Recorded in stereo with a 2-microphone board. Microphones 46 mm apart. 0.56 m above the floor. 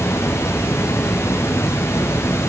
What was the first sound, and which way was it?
Running water, 85° left.